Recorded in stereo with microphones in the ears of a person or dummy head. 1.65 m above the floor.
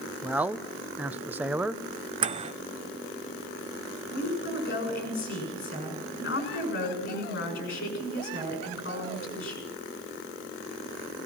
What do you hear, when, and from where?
0.2 s a man speaking: 10° right (ahead or behind), 0.9 m
2.2 s a microwave: 30° right (ahead or behind), 0.7 m
4.1 s a woman speaking: 55° left (ahead or behind), 6.5 m